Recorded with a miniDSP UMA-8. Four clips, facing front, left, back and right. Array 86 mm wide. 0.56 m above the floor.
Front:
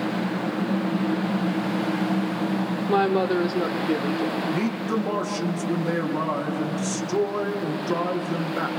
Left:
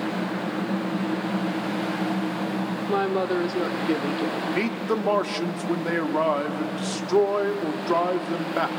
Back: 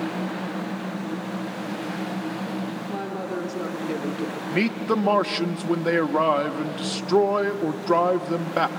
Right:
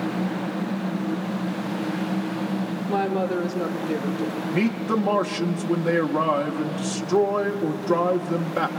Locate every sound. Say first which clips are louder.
2.9 s a woman speaking: even, front 13 dB; 15° left, 1.4 m; by 4.4 s 115° left, 1.0 m
4.5 s a man speaking: right 2 dB, back 2 dB; 170° left, 0.9 m